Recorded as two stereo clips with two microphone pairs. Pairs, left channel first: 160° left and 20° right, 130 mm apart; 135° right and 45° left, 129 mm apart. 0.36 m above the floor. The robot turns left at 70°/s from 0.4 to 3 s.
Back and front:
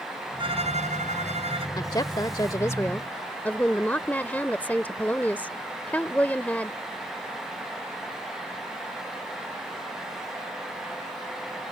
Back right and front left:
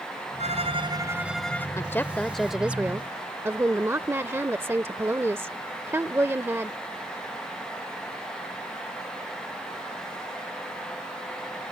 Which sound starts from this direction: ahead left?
A violin, at 0.4 s.